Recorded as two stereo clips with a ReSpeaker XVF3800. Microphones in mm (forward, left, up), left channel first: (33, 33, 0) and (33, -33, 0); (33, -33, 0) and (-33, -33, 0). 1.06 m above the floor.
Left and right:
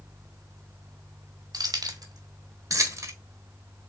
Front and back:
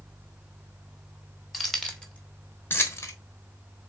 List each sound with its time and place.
1.5 s keys jangling: 90° right, 1.3 m; by 3.1 s 45° right, 1.2 m